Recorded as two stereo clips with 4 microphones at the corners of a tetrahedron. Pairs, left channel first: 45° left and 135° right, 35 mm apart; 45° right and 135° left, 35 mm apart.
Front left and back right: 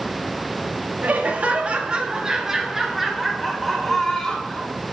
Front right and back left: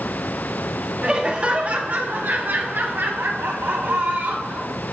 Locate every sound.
1.0 s laughter: 165° right, 1.2 m; by 4.8 s 125° left, 2 m